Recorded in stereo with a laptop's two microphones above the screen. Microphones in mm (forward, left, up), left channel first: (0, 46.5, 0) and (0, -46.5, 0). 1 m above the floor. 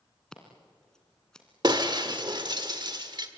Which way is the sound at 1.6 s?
50° right (ahead or behind).